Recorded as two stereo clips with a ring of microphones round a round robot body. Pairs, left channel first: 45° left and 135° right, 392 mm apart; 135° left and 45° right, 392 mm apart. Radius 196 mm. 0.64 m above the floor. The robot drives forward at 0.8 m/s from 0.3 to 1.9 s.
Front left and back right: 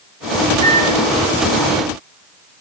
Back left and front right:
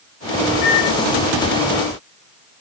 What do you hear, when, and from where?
0.6 s a microwave: 120° left, 3.5 m; by 1.0 s 125° left, 3.5 m